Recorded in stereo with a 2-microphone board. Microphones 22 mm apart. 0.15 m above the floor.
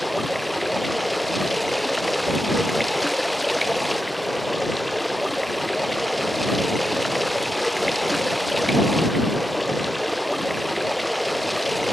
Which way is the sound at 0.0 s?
Centre (ahead or behind).